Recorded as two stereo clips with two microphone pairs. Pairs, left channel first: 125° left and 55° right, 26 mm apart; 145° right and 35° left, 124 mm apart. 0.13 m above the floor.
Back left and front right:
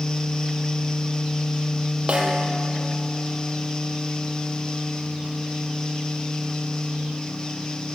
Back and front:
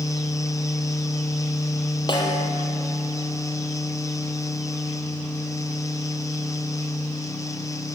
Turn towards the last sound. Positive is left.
turn(degrees=-95)